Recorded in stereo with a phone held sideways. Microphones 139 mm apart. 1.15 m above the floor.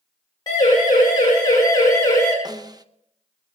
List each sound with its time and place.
0.5 s a siren: 30° left (ahead or behind), 8.5 m; by 2.4 s 25° left (ahead or behind), 6.5 m
2.5 s a snare drum: 30° right (ahead or behind), 0.7 m